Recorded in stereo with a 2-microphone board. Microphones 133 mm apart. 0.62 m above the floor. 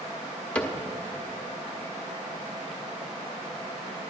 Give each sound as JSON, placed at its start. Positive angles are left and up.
{"t": 0.6, "sound": "a cupboard door", "side_deg": 10, "distance_m": 1.2}